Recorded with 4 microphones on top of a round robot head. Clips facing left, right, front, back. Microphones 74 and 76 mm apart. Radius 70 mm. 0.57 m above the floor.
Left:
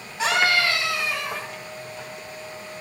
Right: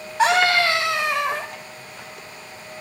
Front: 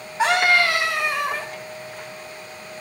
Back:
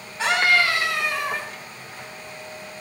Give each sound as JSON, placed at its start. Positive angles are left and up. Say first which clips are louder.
{"t": 0.2, "sound": "a scream", "louder": "right 4 dB, front 2 dB", "azimuth_deg": -80, "distance_m": 3.5}